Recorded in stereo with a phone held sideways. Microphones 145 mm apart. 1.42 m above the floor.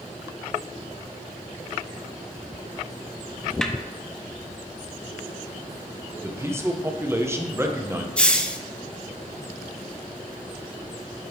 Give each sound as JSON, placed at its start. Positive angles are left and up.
{"t": 3.6, "sound": "a snare drum", "side_deg": 5, "distance_m": 0.6}
{"t": 6.2, "sound": "a man speaking", "side_deg": -20, "distance_m": 0.9}
{"t": 8.2, "sound": "a hiss", "side_deg": 10, "distance_m": 0.5}